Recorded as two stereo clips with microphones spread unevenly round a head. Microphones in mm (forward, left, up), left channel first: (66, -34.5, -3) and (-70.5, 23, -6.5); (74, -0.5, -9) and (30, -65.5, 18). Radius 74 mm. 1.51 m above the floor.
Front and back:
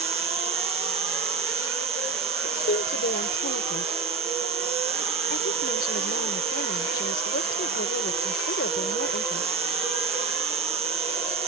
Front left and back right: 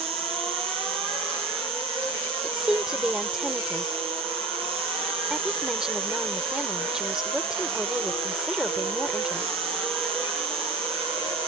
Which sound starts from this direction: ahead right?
A woman speaking, at 2.4 s.